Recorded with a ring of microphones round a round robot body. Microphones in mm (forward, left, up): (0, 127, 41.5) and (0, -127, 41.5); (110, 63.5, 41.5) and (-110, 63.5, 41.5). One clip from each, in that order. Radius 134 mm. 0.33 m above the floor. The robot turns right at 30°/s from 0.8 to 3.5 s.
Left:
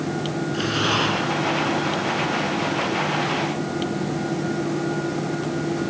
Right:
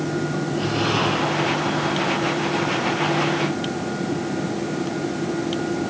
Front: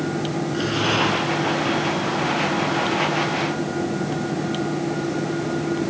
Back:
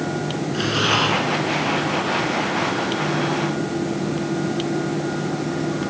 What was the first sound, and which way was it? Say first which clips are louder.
Breathing: left 1 dB, back 3 dB; 110° left.